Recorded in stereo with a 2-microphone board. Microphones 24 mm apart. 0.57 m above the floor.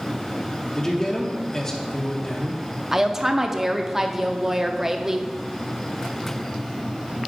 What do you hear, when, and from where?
0.8 s a man speaking: 20° left (ahead or behind), 1.0 m
2.9 s a woman speaking: 20° right (ahead or behind), 0.6 m